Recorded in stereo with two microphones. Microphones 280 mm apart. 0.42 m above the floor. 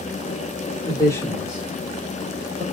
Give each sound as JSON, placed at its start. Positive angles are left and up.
{"t": 0.8, "sound": "a man speaking", "side_deg": 20, "distance_m": 1.6}